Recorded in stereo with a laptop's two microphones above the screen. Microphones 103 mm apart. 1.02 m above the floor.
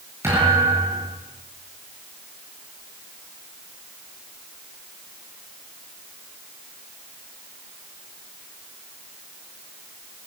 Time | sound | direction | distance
0.2 | a thud | 25° right (ahead or behind) | 5.5 m